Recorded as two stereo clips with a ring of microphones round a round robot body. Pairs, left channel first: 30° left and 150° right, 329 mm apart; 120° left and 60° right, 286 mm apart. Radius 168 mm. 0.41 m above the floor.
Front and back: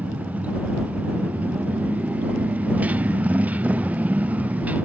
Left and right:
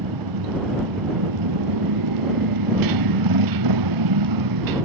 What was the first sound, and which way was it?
A motorcycle, 65° right.